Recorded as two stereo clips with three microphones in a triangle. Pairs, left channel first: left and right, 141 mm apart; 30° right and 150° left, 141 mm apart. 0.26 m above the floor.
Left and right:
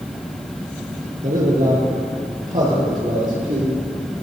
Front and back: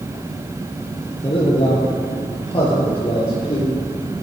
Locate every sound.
1.2 s a man speaking: 80° right, 3.5 m; by 3.7 s 75° right, 6 m